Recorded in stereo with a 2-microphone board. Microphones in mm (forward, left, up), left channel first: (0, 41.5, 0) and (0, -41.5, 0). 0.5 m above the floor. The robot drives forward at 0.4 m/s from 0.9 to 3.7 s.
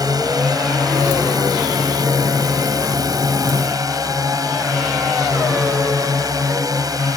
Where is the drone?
50° right (ahead or behind).